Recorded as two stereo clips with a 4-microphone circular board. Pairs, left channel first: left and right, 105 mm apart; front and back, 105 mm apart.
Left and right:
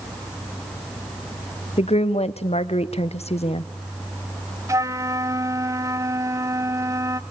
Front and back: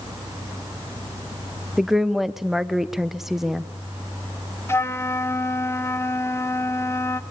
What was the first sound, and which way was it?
A woman speaking, 95° left.